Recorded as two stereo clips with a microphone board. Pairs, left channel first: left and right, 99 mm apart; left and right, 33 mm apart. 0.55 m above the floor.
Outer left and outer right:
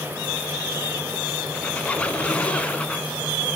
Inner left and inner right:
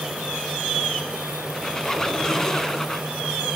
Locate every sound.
1.5 s a squeak: 15° left (ahead or behind), 1.1 m